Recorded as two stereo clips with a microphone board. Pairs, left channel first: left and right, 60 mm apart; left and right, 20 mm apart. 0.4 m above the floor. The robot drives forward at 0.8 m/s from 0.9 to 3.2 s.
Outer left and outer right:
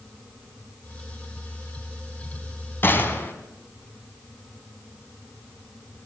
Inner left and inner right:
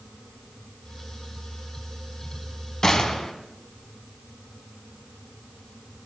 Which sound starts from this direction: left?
A gunshot, at 2.8 s.